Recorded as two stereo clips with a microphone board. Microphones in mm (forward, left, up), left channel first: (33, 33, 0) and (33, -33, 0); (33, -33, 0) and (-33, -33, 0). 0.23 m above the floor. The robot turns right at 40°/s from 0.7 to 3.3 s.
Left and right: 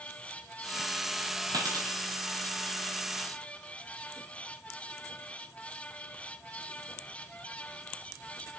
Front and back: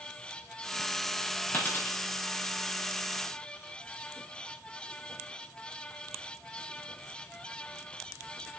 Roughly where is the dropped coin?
Ahead right.